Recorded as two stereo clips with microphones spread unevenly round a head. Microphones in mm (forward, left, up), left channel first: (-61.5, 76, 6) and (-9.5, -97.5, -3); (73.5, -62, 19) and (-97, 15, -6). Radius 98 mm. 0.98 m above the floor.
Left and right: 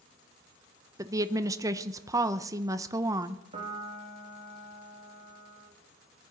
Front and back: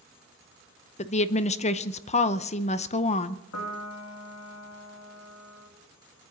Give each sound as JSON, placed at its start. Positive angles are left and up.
{"t": 1.0, "sound": "a woman speaking", "azimuth_deg": -30, "distance_m": 0.7}
{"t": 3.5, "sound": "a piano", "azimuth_deg": -15, "distance_m": 2.0}